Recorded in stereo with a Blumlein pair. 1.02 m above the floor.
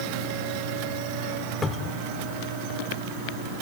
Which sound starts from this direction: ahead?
A cupboard door, at 1.6 s.